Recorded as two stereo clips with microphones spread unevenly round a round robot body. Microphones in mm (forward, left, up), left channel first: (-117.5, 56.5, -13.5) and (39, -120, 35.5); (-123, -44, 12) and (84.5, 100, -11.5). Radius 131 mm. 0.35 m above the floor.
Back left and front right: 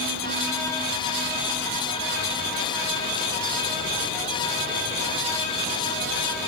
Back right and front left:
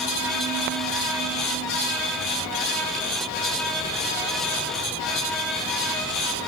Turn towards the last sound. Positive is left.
No sound to turn to.